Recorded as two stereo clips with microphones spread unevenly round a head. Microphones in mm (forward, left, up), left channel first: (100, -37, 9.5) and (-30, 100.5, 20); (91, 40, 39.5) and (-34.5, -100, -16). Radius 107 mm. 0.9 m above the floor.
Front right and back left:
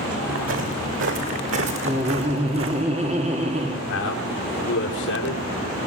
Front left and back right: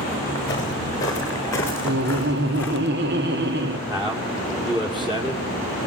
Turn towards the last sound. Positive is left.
turn(degrees=-70)